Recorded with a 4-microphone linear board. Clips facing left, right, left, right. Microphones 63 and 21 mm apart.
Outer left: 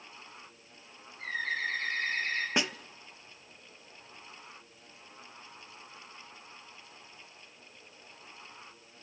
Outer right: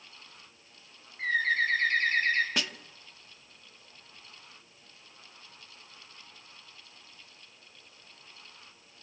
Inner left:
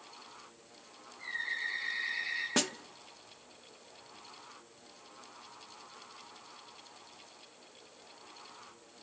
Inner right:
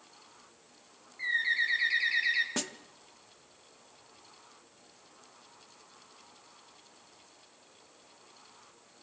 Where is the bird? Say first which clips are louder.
Outer right 7 dB, inner right 8 dB; 55° right (ahead or behind), 4 m.